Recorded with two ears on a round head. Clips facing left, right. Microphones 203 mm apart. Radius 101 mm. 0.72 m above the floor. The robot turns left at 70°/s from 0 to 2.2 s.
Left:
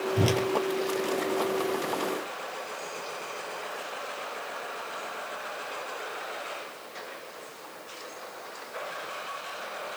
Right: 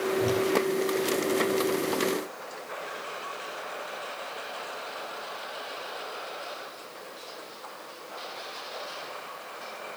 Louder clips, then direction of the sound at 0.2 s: Left 1 dB; 70° left (ahead or behind).